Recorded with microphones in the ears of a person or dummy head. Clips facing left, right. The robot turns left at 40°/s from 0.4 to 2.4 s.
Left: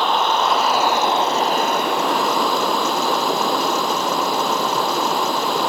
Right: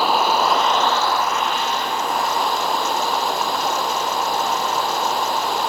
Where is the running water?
175° right; by 5.7 s 105° left.